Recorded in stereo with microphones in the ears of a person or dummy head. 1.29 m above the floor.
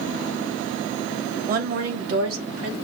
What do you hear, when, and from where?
1.5 s a woman speaking: 45° right (ahead or behind), 1.0 m; by 2.8 s 80° right, 2 m